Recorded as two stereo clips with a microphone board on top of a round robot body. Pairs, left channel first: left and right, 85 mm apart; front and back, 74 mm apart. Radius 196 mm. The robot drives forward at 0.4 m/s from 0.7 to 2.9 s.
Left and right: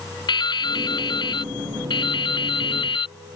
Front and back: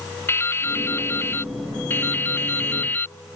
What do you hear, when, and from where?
0.3 s dripping: 60° left; by 3.2 s 65° left